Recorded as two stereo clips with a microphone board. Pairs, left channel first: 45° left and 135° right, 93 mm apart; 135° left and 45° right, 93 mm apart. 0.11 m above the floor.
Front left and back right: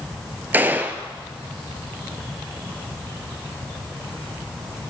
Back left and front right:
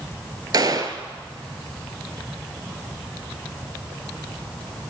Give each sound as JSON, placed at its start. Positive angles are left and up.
{"t": 0.5, "sound": "a gunshot", "azimuth_deg": -70, "distance_m": 0.5}